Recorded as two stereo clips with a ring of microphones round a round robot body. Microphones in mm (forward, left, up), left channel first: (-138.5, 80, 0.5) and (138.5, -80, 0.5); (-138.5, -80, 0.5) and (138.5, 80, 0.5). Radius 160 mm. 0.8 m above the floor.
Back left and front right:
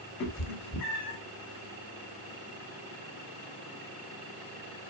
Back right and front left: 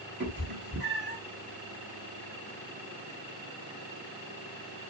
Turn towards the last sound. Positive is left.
turn(degrees=90)